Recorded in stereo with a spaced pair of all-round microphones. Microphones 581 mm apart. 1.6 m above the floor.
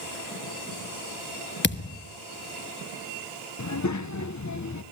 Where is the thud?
20° left (ahead or behind), 1.0 m.